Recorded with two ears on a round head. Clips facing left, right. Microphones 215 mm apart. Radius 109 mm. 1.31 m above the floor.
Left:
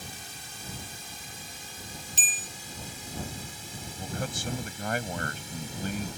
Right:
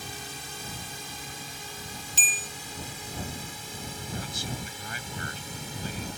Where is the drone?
55° right (ahead or behind); by 6.2 s 50° right (ahead or behind).